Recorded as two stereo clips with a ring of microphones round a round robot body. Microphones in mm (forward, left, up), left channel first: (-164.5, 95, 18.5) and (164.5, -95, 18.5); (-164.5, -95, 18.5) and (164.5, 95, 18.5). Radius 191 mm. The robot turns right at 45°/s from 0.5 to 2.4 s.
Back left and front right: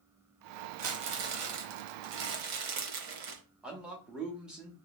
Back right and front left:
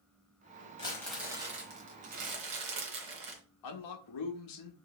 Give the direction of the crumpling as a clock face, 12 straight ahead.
2 o'clock.